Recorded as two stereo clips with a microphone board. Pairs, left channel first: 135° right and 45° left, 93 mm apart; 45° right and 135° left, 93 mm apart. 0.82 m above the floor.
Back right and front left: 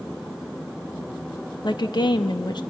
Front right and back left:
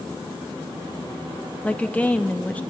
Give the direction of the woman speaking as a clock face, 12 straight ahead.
4 o'clock.